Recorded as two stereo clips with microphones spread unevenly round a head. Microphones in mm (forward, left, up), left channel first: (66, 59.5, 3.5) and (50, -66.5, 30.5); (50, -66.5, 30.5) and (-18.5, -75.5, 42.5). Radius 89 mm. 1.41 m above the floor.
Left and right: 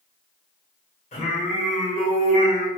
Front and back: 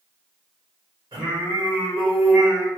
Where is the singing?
130° left, 1.1 m.